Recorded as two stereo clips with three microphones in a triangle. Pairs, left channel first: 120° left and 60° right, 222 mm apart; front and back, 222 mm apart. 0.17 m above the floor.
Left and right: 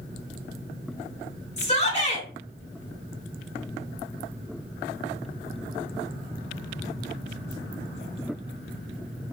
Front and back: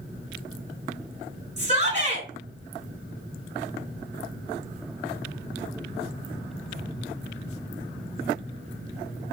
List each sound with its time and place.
1.6 s a shout: 150° left, 1.3 m